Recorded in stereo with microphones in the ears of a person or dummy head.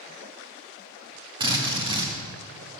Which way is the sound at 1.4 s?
20° right (ahead or behind).